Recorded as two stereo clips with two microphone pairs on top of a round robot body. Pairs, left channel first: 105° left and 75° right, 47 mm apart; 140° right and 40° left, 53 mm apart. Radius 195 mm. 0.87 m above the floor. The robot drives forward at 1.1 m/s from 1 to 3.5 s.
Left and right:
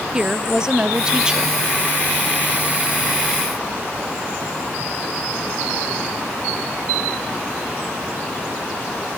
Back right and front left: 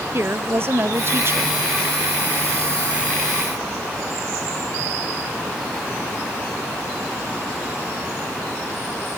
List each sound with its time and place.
0.1 s a woman speaking: straight ahead; by 1.6 s 5° right